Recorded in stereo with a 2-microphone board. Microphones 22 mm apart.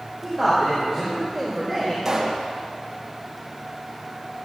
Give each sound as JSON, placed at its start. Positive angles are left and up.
{"t": 0.2, "sound": "a man speaking", "side_deg": 20, "distance_m": 5.0}
{"t": 2.0, "sound": "a pop", "side_deg": -10, "distance_m": 2.5}